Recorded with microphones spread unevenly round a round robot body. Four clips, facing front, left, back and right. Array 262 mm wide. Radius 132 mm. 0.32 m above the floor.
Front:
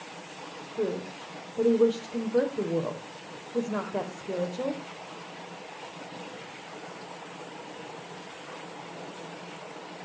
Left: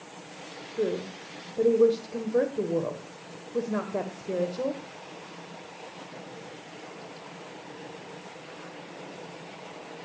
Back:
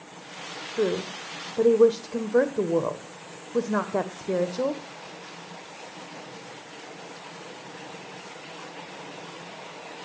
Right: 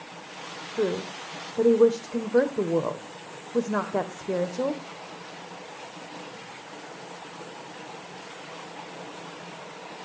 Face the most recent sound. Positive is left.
turn(degrees=-165)